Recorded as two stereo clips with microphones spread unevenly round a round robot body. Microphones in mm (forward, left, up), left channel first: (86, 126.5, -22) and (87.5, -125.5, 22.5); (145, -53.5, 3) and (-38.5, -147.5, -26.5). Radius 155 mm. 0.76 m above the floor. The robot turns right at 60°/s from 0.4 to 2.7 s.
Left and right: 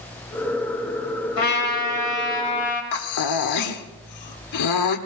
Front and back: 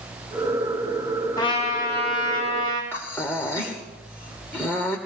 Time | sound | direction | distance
1.4 | a trumpet | 95° left | 3 m
2.9 | breathing | 110° left | 1.1 m